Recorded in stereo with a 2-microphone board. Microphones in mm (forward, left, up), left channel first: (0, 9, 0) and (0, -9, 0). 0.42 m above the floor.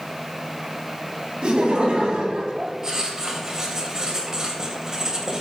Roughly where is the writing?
Right.